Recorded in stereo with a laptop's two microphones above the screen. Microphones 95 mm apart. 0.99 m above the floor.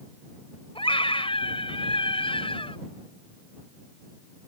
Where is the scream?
70° left (ahead or behind).